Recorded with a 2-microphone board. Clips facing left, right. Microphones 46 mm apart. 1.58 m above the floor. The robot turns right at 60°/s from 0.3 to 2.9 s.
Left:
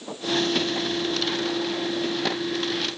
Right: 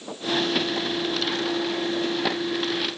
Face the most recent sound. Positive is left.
No sound to turn to.